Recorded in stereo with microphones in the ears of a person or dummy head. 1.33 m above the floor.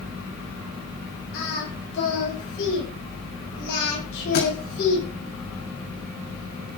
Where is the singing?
75° left (ahead or behind), 9 m.